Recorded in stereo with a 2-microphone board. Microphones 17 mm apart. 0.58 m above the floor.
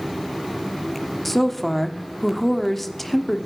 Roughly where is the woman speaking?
Centre.